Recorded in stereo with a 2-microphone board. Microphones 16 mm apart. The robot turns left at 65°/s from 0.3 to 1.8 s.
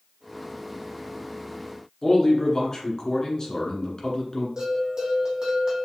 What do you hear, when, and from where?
2.0 s a man speaking: 40° left (ahead or behind), 1.4 m
4.6 s a bell: 40° right (ahead or behind), 1.9 m